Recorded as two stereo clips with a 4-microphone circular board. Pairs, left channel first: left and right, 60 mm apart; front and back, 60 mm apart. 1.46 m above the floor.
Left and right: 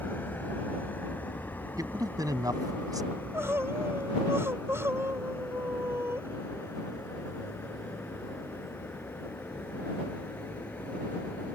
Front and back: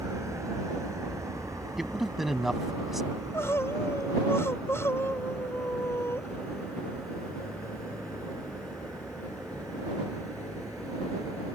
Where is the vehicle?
150° left; by 11.5 s 160° left.